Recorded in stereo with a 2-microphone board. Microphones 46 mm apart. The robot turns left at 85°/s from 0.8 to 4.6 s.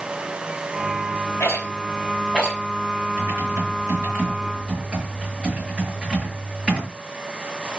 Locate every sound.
1.4 s a rattle: 75° left (ahead or behind), 4.5 m; by 2.6 s 5° left (ahead or behind), 4.5 m
3.2 s typing on a keyboard: 35° right, 6.5 m; by 6.9 s 160° right, 6.5 m